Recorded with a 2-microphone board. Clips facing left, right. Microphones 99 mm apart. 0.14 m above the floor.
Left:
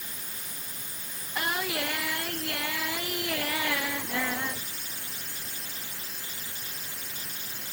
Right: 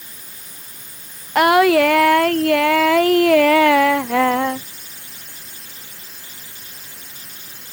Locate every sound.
1.4 s singing: 80° right